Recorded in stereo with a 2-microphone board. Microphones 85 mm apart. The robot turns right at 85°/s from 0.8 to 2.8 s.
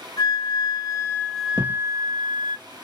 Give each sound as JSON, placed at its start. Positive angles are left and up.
{"t": 0.2, "sound": "a flute", "azimuth_deg": 125, "distance_m": 0.7}
{"t": 1.6, "sound": "a thud", "side_deg": -50, "distance_m": 0.9}